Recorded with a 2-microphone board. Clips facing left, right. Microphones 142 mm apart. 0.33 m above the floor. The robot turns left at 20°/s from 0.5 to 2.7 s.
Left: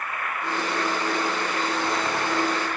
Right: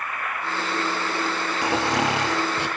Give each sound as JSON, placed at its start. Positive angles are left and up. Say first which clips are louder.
{"t": 1.6, "sound": "snoring", "louder": "right 6 dB", "side_deg": -80, "distance_m": 5.0}